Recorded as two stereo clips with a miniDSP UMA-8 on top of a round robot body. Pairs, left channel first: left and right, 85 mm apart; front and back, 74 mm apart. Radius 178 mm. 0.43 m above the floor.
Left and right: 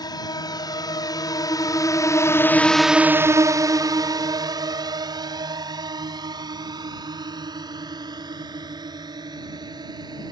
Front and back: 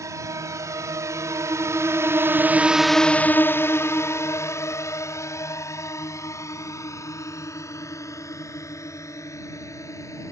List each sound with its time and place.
0.0 s a drone: 130° left; by 10.3 s 50° right